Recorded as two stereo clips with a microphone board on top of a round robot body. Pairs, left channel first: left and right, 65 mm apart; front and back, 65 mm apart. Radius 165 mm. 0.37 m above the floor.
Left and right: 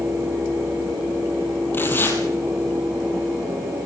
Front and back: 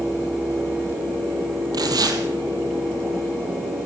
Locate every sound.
1.7 s tearing paper: 150° left, 3 m